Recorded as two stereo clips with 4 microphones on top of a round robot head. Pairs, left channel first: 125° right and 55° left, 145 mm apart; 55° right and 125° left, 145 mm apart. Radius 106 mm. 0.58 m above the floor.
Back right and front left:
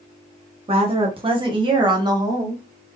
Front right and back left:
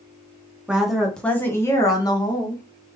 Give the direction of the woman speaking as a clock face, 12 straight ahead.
10 o'clock.